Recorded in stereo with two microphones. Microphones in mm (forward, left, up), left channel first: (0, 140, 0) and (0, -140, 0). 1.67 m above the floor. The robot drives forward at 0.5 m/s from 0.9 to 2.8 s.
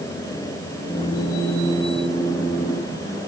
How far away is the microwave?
I don't hear a microwave.